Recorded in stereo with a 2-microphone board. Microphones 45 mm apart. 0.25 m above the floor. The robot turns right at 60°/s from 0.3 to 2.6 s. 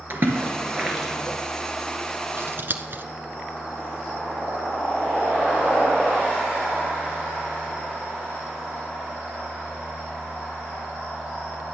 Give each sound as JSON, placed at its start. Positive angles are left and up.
{"t": 0.1, "sound": "a splash", "side_deg": -45, "distance_m": 3.0}
{"t": 2.4, "sound": "scissors", "side_deg": -60, "distance_m": 1.2}